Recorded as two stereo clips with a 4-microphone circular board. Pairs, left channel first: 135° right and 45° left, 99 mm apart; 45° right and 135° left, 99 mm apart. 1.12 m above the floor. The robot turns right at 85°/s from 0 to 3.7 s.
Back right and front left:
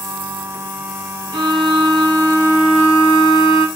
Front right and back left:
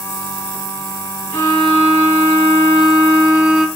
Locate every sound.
1.3 s a violin: 15° left, 0.9 m; by 3.7 s 145° right, 0.9 m